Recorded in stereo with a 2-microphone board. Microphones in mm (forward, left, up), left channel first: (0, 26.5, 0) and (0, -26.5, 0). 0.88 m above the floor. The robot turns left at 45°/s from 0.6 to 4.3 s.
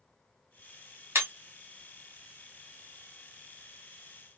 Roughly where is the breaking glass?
Right.